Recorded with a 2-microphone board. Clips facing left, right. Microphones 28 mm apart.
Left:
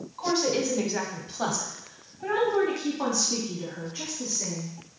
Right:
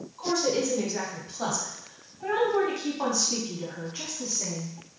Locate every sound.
0.2 s a woman speaking: 35° left (ahead or behind), 1.3 m; by 4.7 s 20° right (ahead or behind), 1.9 m